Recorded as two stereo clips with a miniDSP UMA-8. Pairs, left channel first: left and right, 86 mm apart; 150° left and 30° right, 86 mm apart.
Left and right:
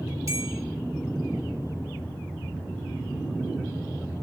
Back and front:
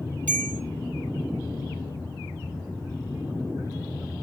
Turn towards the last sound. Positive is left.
turn(degrees=-140)